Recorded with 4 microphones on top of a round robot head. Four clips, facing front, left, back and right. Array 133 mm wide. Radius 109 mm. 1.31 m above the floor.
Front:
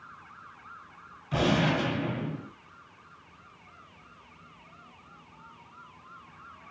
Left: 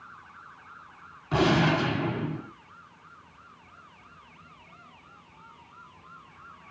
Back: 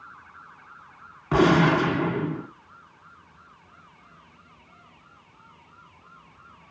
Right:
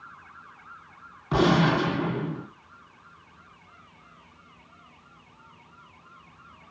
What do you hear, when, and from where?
1.3 s a gunshot: 160° right, 1.6 m